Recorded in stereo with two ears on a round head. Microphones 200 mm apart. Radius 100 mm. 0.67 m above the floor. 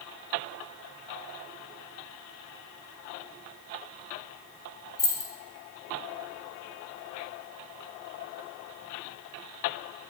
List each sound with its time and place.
5.0 s keys jangling: 15° left (ahead or behind), 1.3 m